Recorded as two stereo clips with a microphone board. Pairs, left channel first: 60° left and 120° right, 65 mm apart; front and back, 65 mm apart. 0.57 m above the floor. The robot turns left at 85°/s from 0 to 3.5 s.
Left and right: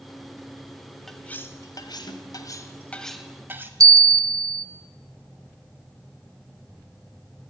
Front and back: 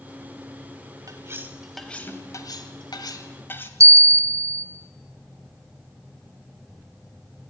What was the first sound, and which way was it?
Cutlery clinking, 150° left.